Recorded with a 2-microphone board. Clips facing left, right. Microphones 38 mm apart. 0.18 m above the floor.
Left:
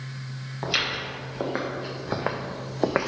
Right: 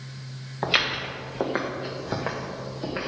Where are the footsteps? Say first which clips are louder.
Right 3 dB; 20° right (ahead or behind), 1.8 m; by 3.1 s 80° left, 0.7 m.